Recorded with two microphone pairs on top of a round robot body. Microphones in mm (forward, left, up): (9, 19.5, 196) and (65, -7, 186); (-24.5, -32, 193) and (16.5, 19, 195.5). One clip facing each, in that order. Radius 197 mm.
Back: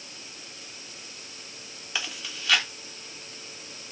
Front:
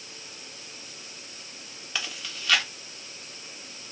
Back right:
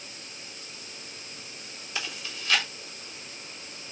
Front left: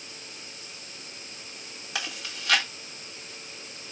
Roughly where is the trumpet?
I don't hear a trumpet.